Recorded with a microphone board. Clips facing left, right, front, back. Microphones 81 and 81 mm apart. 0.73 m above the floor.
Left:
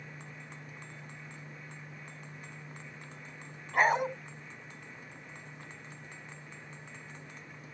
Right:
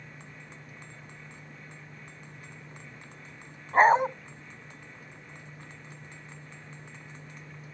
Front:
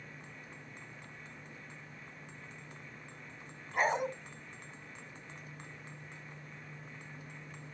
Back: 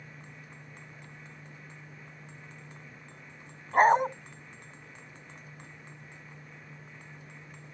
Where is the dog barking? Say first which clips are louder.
Right 7 dB, back 10 dB; 145° right, 1.2 m.